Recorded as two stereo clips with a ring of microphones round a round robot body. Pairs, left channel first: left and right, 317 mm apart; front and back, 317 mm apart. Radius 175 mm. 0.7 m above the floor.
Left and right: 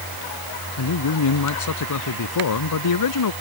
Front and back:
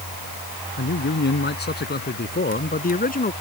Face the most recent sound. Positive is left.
turn(degrees=65)